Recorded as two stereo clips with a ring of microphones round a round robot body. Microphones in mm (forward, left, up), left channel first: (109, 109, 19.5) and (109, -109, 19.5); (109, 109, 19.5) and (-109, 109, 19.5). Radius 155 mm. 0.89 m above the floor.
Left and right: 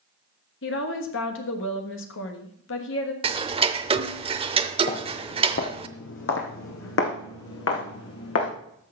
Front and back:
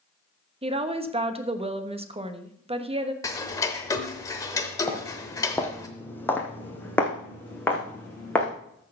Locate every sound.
0.6 s a woman speaking: 120° left, 1.4 m
3.2 s ticking: 60° right, 0.6 m
4.9 s footsteps: 80° left, 1.1 m